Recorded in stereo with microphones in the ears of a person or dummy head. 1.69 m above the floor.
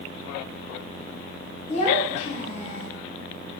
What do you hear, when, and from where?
1.7 s a child speaking: 40° left (ahead or behind), 0.9 m